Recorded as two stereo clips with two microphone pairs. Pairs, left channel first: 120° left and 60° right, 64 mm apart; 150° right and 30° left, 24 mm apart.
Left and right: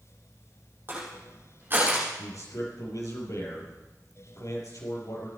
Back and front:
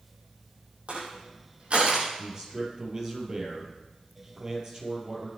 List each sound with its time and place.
0.9 s crushing: straight ahead, 5 m
2.2 s a man speaking: 90° left, 4 m